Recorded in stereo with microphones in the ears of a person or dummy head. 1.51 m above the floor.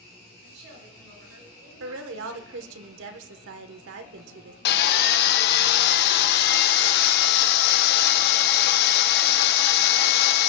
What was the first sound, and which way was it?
A woman speaking, 75° right (ahead or behind).